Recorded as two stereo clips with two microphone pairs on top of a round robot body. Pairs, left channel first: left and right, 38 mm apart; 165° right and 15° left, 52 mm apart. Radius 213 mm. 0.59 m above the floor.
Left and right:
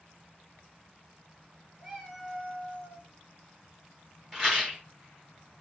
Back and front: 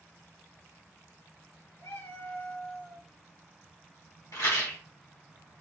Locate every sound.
1.8 s a cat meowing: 160° right, 3 m
4.3 s a rattle: 170° right, 1.6 m